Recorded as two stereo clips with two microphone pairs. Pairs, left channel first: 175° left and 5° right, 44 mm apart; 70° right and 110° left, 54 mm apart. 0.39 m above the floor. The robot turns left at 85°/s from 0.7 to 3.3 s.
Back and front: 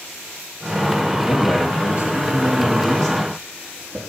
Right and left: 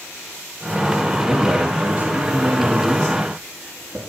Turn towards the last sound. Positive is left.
turn(degrees=60)